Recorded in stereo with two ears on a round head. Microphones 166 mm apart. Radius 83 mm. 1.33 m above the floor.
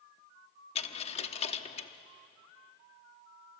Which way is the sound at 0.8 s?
35° left (ahead or behind).